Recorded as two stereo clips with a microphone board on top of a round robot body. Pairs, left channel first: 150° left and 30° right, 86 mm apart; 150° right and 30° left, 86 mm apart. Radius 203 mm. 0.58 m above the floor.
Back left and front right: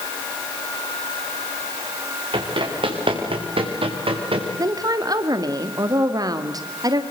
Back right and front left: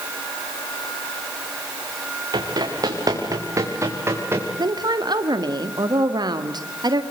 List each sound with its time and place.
2.3 s running footsteps: 10° right, 5 m; by 4.5 s 35° right, 5.5 m
4.6 s a woman speaking: 5° left, 2 m